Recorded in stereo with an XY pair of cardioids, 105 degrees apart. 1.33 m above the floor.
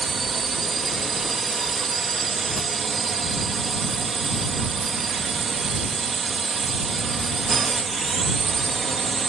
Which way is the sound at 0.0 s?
40° right.